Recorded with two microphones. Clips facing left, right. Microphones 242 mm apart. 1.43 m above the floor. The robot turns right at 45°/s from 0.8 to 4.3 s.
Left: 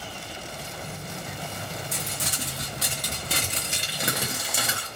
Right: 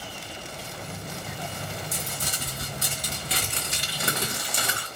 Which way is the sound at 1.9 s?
70° left.